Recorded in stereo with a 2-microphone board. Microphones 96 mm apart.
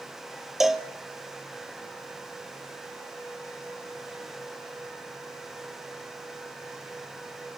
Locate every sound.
0.6 s a cowbell: 5° right (ahead or behind), 0.9 m